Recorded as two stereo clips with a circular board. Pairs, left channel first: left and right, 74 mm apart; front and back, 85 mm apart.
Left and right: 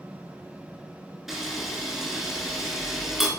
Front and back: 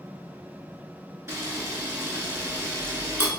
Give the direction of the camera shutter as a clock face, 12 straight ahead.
6 o'clock.